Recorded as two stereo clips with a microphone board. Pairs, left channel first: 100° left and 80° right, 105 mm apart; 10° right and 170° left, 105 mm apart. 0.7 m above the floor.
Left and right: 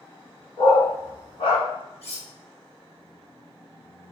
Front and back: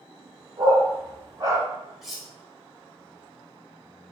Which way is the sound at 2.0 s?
80° left.